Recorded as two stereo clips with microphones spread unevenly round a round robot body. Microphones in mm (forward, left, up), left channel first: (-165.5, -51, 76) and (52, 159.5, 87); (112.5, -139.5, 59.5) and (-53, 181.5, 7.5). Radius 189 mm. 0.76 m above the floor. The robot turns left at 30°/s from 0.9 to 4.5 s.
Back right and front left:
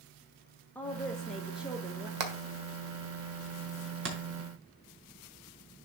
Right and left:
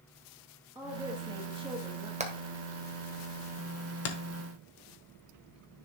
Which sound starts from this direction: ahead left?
Hammering, at 2.2 s.